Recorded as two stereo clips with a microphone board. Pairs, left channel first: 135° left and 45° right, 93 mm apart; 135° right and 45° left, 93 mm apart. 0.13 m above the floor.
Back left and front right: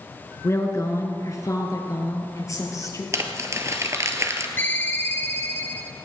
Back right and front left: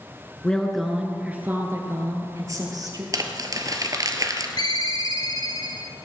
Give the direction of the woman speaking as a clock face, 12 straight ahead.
7 o'clock.